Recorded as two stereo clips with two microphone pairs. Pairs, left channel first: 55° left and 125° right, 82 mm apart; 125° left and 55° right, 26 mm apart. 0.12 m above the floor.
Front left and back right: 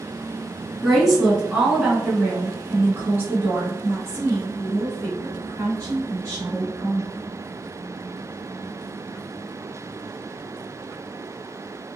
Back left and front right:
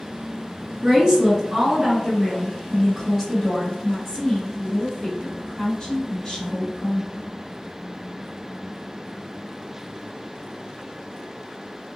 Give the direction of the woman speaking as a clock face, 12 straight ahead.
1 o'clock.